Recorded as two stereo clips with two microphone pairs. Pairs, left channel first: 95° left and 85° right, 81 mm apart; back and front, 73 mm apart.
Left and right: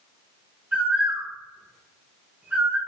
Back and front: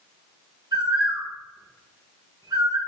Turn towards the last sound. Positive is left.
turn(degrees=-15)